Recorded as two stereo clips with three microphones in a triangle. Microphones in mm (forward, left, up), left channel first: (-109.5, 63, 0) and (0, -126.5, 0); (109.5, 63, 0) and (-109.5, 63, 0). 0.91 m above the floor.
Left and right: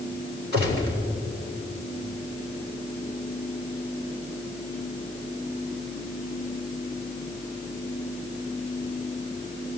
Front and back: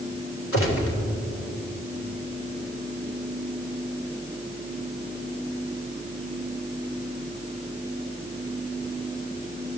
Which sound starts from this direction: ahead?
A gunshot, at 0.5 s.